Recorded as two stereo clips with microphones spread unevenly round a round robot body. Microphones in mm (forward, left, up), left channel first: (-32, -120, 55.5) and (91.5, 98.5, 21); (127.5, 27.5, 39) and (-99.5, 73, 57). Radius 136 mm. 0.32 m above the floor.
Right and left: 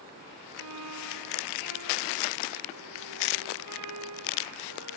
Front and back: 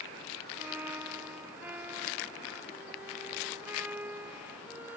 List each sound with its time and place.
0.6 s a violin: 85° left